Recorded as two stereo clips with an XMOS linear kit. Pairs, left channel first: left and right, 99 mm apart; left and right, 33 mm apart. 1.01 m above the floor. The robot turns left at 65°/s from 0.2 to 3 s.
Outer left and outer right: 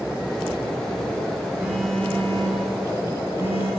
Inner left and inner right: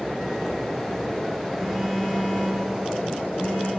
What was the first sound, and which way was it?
A phone buzzing, 165° right.